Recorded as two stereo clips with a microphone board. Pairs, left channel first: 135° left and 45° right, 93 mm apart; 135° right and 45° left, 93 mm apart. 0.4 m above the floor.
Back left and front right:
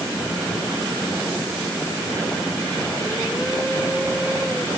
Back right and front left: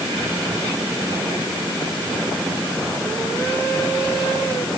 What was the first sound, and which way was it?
Only background noise.